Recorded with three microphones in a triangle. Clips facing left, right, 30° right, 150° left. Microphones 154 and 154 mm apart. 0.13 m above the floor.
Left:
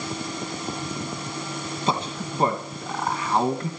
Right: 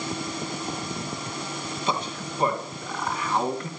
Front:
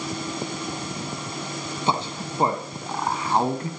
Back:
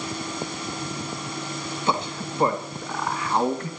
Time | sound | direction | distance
1.9 | a man speaking | 30° left | 3 m